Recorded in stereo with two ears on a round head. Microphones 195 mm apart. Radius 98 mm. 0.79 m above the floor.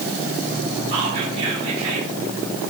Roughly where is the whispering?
Right.